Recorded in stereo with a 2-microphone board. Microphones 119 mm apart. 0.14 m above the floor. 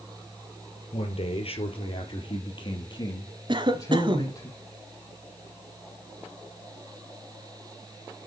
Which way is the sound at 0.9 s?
65° left (ahead or behind).